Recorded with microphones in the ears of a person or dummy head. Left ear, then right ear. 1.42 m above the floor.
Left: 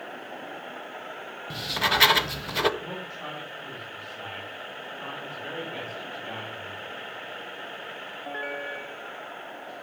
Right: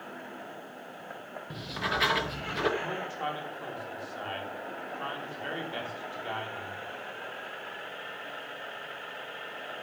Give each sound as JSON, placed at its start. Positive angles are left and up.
{"t": 1.5, "sound": "writing", "side_deg": 25, "distance_m": 0.6}
{"t": 2.8, "sound": "a man speaking", "side_deg": -35, "distance_m": 3.0}